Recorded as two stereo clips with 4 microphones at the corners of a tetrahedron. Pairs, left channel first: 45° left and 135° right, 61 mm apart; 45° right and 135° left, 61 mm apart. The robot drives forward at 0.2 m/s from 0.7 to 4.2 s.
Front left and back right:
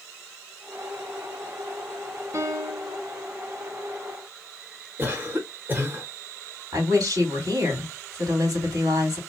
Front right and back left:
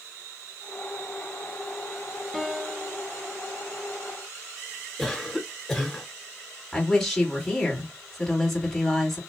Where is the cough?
125° right, 1.1 m.